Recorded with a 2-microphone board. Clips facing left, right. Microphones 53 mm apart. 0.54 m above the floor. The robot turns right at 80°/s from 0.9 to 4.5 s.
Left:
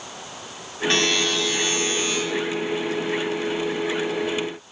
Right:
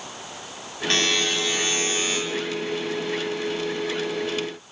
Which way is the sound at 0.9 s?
Straight behind.